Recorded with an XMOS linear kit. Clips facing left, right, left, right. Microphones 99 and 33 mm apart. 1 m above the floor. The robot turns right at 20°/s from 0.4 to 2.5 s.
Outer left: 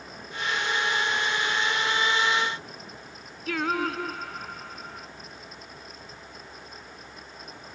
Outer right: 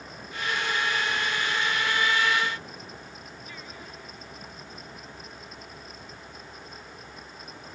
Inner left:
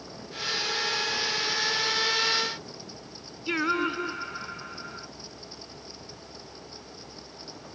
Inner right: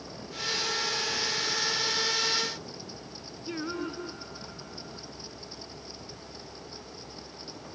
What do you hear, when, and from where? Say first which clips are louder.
3.5 s singing: outer left 21 dB, inner left 8 dB; 85° left